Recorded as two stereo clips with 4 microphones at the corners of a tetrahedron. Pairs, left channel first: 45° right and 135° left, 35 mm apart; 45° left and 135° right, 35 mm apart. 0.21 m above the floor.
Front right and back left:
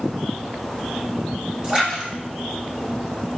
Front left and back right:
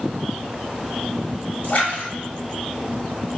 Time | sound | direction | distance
1.6 | a splash | 75° left | 1.1 m